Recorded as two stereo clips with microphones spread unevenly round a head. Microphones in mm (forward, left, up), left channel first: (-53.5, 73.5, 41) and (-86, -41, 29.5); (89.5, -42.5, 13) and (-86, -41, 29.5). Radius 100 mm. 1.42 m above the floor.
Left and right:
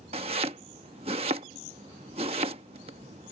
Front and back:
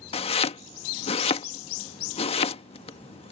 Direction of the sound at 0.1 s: 55° right.